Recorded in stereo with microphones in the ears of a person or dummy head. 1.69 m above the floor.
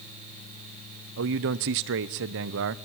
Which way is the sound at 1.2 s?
55° right (ahead or behind).